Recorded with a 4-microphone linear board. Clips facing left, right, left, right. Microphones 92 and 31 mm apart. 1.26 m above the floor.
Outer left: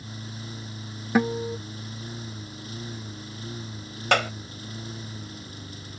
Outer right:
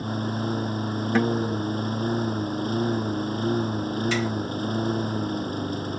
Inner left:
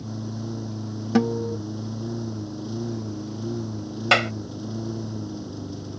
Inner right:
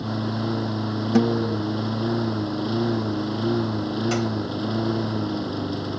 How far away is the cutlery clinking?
No cutlery clinking in this recording.